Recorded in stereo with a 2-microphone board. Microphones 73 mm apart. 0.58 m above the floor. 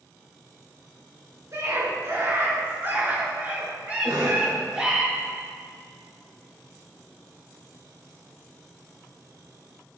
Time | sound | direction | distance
1.5 | a scream | 50° right (ahead or behind) | 6.5 m
4.0 | a cough | 75° right (ahead or behind) | 6.5 m